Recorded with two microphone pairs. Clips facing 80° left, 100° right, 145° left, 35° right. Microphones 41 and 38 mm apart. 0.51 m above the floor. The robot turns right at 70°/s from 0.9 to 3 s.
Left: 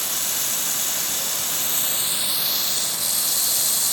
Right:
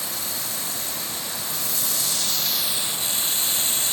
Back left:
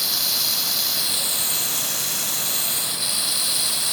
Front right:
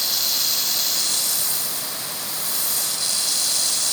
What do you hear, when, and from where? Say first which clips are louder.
0.0 s running water: left 2 dB, even; 60° left, 0.7 m; by 3.9 s 150° right, 0.7 m